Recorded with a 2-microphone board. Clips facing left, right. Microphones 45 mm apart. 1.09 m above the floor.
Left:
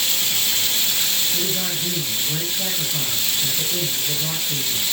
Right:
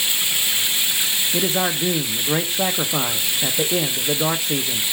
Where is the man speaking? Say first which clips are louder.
Right 5 dB; 55° right (ahead or behind), 0.8 m.